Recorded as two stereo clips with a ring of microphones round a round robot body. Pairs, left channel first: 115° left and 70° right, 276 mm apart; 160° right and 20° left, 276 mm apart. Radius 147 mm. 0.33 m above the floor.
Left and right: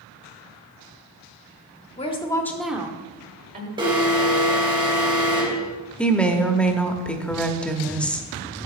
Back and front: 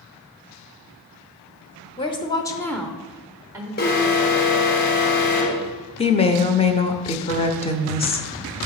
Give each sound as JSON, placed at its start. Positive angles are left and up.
{"t": 2.0, "sound": "a woman speaking", "azimuth_deg": 155, "distance_m": 1.1}
{"t": 3.8, "sound": "an alarm", "azimuth_deg": -130, "distance_m": 2.0}
{"t": 6.0, "sound": "a woman speaking", "azimuth_deg": -170, "distance_m": 0.8}